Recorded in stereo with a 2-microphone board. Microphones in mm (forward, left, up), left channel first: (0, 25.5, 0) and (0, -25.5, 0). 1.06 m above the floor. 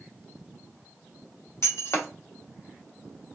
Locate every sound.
1.6 s breaking glass: 60° left (ahead or behind), 0.9 m